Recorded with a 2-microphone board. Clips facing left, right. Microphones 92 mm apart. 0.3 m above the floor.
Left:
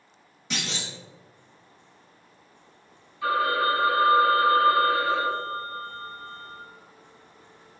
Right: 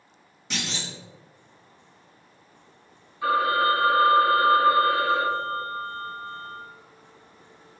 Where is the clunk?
Centre (ahead or behind), 1.2 m.